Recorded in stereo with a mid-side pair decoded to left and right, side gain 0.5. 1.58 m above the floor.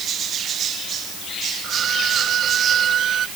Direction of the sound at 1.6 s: 55° right.